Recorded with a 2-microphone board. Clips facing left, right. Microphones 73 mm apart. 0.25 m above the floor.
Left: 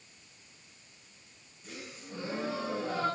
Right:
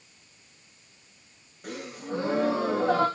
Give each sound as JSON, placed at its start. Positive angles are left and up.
{"t": 1.6, "sound": "a gasp", "side_deg": -80, "distance_m": 6.5}